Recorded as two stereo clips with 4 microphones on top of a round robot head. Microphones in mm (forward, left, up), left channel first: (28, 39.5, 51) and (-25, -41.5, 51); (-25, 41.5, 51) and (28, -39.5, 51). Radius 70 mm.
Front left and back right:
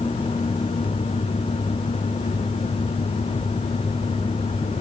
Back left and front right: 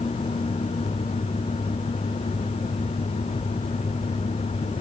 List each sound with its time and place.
Only background noise.